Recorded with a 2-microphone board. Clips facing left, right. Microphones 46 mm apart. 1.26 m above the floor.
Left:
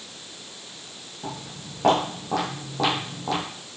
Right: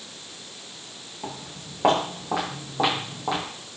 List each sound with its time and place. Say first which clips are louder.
1.2 s footsteps: left 1 dB; 25° right (ahead or behind), 5 m; by 3.4 s 15° right (ahead or behind), 3.5 m